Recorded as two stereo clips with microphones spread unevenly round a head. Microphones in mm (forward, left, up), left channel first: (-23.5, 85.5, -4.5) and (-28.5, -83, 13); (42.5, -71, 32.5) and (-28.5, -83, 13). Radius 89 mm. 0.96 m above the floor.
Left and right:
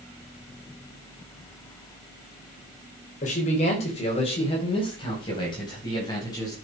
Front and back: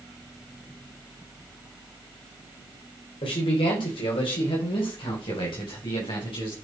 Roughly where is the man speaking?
Ahead left.